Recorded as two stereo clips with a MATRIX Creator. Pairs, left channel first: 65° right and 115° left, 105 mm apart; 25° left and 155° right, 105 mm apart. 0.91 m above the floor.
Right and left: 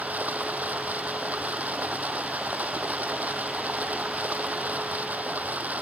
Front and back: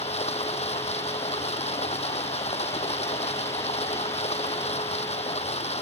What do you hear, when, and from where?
0.0 s running water: 35° left